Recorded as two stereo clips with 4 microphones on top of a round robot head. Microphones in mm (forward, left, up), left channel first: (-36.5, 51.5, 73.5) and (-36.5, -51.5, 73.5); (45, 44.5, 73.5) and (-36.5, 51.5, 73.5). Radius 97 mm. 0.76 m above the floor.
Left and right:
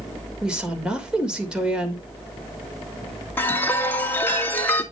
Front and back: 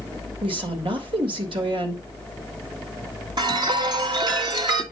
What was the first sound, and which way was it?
A woman speaking, 170° right.